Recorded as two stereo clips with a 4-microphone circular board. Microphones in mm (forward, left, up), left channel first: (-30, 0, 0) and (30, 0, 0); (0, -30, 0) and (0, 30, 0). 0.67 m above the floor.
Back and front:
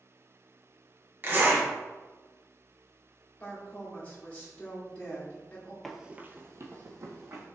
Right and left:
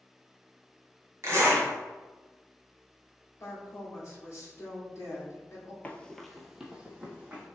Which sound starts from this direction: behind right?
A woman speaking, at 3.4 s.